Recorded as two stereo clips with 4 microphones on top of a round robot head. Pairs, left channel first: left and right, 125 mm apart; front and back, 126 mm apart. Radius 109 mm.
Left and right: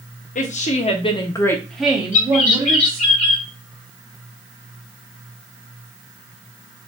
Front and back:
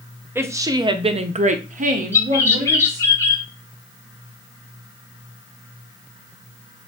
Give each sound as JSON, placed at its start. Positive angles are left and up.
{"t": 0.3, "sound": "a woman speaking", "azimuth_deg": 110, "distance_m": 1.0}
{"t": 2.1, "sound": "a bird", "azimuth_deg": 70, "distance_m": 2.0}